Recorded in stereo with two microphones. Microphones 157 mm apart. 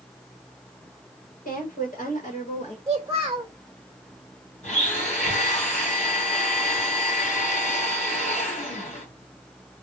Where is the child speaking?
25° right (ahead or behind), 0.5 m.